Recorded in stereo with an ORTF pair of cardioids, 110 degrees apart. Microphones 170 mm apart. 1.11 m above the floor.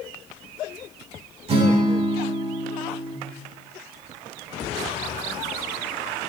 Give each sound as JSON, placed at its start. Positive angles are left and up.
{"t": 1.5, "sound": "a guitar", "azimuth_deg": -35, "distance_m": 1.7}